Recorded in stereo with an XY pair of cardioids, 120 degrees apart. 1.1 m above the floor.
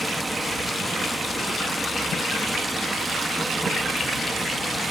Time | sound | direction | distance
0.0 | running water | 5° right | 1.6 m